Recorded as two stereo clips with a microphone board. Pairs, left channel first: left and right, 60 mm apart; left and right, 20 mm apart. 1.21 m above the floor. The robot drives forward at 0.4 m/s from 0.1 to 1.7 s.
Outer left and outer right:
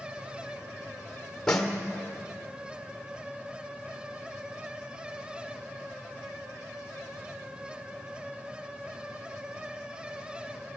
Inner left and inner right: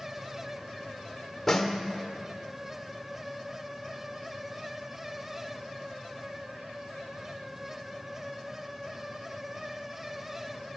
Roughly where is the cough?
I don't hear a cough.